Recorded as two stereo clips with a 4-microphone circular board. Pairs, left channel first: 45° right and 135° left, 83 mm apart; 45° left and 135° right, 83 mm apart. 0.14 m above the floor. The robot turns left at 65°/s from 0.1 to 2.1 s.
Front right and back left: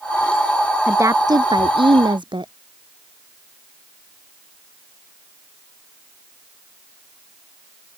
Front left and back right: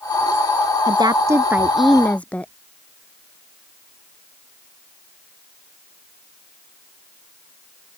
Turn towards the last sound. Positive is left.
turn(degrees=120)